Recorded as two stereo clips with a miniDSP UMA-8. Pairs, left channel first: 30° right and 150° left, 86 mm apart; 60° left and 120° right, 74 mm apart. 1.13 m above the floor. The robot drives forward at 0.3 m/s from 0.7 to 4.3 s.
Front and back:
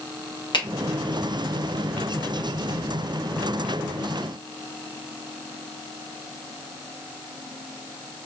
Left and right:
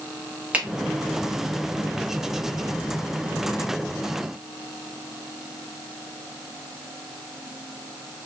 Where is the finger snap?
50° right, 1.1 m.